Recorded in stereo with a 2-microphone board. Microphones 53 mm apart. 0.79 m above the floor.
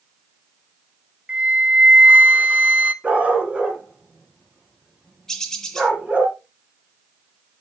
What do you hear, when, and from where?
1.3 s a flute: 20° right (ahead or behind), 0.5 m
3.0 s a dog barking: 20° right (ahead or behind), 2 m
5.3 s a bird: 10° left (ahead or behind), 1.1 m